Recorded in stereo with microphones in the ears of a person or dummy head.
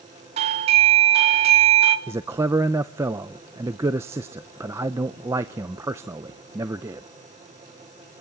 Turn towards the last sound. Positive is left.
turn(degrees=-15)  # may be behind; listen again after turning